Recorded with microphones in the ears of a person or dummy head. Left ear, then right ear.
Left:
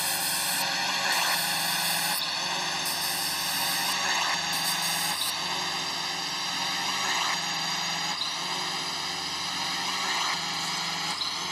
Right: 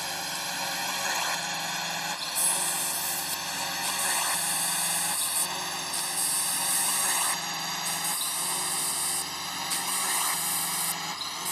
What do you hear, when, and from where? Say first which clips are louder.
0.0 s a drone: left 3 dB; 5° right (ahead or behind); by 11.5 s 10° right (ahead or behind)